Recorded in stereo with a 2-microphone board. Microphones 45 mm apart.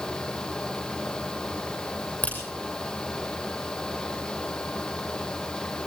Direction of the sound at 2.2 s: 40° left (ahead or behind).